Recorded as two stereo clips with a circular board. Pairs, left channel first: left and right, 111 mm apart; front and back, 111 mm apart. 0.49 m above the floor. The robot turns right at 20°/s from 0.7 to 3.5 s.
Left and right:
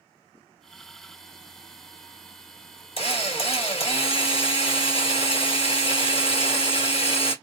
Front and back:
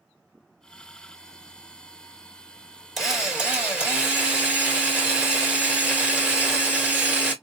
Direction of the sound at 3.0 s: 90° left.